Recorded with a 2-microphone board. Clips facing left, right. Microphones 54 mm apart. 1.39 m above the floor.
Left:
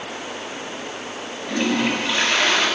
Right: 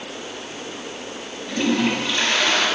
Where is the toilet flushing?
10° left (ahead or behind), 5.5 m.